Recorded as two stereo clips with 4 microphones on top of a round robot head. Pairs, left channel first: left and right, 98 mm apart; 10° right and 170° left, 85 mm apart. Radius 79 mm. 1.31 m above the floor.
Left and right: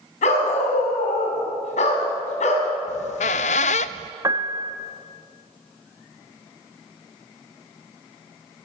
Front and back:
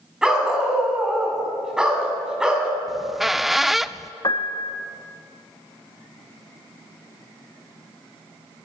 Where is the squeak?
85° left, 0.5 m.